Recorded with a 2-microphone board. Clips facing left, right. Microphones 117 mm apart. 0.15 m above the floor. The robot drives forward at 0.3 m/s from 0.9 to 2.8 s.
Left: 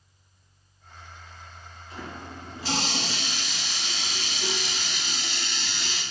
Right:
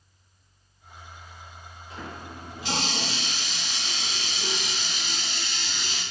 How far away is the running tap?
About 1.2 m.